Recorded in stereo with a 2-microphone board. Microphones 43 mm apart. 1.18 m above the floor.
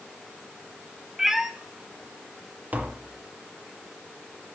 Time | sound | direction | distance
1.2 | a cat meowing | 10° right (ahead or behind) | 0.6 m
2.7 | tapping | 40° right (ahead or behind) | 0.7 m